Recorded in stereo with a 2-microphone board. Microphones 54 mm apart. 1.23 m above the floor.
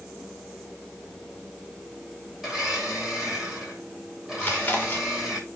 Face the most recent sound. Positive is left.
turn(degrees=35)  # may be behind; listen again after turning